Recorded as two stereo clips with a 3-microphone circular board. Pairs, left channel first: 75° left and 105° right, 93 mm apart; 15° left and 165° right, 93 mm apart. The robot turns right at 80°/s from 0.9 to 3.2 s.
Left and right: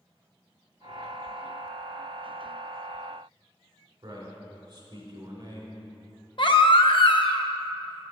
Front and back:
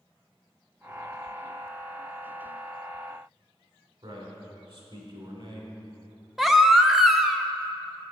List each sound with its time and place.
4.0 s a man speaking: 150° right, 3 m
6.4 s a baby crying: 110° left, 0.6 m